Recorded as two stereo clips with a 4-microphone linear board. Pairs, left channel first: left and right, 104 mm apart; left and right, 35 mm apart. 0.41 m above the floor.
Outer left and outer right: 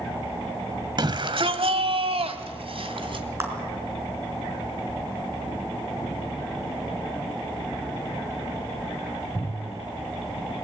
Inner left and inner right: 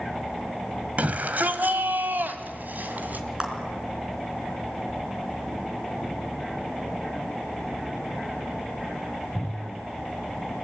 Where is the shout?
45° right (ahead or behind), 2 m; by 3.2 s 55° right (ahead or behind), 3 m.